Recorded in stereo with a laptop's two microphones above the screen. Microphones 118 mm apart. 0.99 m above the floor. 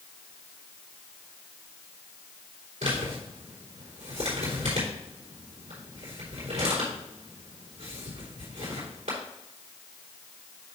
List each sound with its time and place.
2.8 s a man speaking: 80° right, 3.5 m